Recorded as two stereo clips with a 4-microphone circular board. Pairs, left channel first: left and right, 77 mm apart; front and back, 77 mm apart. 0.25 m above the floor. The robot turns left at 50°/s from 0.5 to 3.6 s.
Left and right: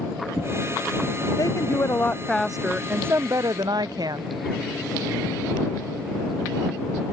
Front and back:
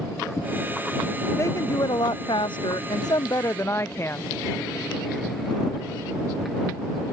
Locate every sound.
1.4 s a woman speaking: 55° left; by 4.2 s 55° right